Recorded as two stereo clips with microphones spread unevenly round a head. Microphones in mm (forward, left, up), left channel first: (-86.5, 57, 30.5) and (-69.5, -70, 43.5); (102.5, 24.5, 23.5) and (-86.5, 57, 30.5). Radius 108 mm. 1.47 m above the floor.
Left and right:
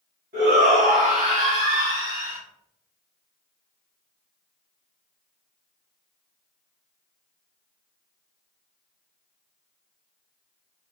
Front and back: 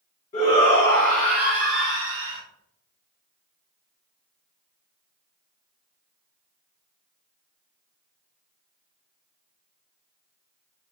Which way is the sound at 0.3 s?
65° right.